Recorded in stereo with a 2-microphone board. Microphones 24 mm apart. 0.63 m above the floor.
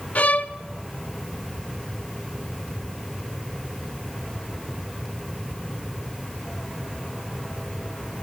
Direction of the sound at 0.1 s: 85° left.